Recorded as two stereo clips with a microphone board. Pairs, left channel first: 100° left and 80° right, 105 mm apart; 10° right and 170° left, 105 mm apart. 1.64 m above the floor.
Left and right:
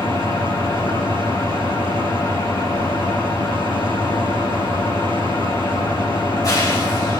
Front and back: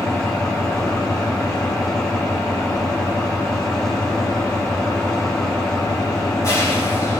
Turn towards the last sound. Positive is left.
turn(degrees=45)